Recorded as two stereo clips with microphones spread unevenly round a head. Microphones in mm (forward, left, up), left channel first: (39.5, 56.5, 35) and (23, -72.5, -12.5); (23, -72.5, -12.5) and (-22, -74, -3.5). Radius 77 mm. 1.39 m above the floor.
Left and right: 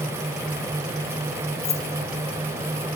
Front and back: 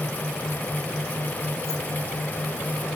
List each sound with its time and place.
1.6 s keys jangling: 55° left, 2.0 m